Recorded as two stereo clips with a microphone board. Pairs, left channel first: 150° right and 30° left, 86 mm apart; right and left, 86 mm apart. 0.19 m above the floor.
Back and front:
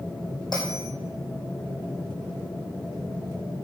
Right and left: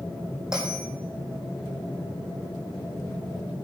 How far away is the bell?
About 4 m.